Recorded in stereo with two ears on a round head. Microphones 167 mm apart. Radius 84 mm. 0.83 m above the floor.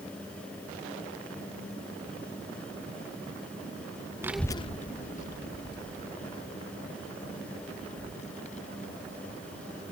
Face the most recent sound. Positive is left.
turn(degrees=35)  # may be behind; listen again after turning